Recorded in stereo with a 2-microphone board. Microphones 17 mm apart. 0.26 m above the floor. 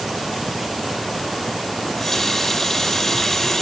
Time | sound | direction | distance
1.8 | a running tap | 15° left (ahead or behind) | 4.5 m